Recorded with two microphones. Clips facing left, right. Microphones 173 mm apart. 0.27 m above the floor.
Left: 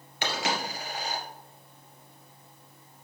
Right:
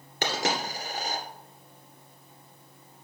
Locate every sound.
0.2 s a dropped coin: 40° right (ahead or behind), 2.0 m